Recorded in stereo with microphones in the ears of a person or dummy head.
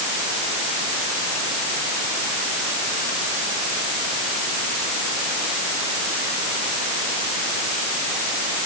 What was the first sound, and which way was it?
Only background noise.